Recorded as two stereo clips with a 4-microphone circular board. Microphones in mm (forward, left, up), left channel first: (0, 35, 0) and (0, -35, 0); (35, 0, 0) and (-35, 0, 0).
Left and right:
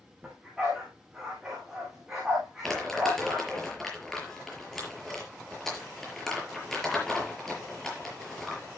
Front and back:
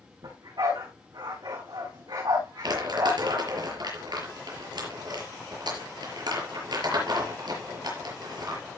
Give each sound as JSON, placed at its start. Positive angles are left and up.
{"t": 0.2, "sound": "a dog barking", "azimuth_deg": -170, "distance_m": 6.5}
{"t": 2.6, "sound": "crumpling", "azimuth_deg": 175, "distance_m": 5.5}